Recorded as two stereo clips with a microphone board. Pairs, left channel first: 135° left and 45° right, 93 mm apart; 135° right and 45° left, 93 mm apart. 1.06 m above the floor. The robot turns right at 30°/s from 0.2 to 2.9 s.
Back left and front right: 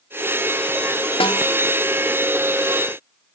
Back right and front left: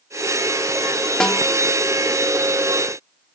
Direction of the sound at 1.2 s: 145° left.